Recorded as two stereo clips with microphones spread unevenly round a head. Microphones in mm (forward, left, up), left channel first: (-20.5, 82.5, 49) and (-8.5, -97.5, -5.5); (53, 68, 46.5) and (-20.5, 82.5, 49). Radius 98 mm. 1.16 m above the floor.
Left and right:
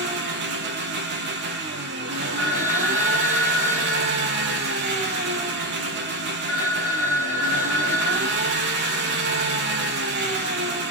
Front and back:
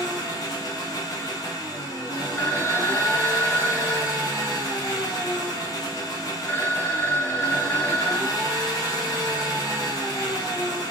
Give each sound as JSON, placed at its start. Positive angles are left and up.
{"t": 0.0, "sound": "an engine running", "azimuth_deg": -65, "distance_m": 0.7}
{"t": 2.4, "sound": "a phone ringing", "azimuth_deg": 60, "distance_m": 0.9}